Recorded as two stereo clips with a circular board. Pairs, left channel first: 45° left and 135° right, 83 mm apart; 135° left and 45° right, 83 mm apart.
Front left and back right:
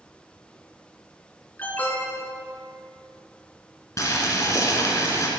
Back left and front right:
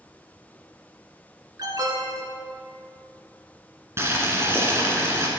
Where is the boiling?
5° left, 2.0 m.